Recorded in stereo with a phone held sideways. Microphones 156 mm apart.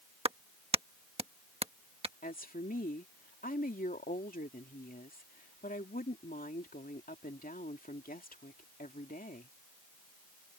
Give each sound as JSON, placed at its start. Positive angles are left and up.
{"t": 0.2, "sound": "a clap", "side_deg": -40}
{"t": 2.2, "sound": "a woman speaking", "side_deg": 80}